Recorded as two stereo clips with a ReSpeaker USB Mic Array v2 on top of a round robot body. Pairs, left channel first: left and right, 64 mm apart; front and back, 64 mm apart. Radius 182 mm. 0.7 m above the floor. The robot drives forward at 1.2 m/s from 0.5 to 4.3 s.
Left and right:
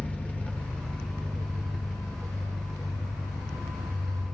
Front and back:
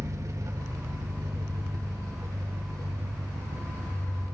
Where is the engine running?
155° left, 1.6 m; by 4.3 s 175° left, 6 m.